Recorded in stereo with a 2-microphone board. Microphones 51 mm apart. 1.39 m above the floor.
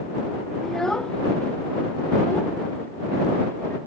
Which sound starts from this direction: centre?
A child speaking, at 0.6 s.